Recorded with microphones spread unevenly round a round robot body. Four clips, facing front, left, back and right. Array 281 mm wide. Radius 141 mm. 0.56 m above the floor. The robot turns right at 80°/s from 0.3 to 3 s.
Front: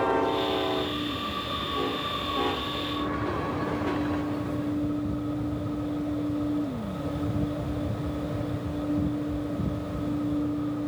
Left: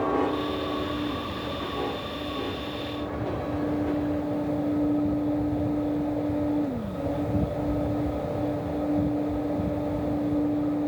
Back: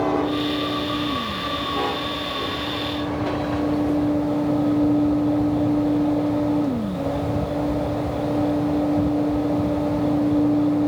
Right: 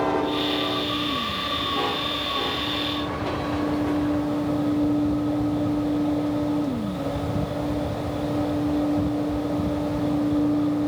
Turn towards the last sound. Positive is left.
No sound to turn to.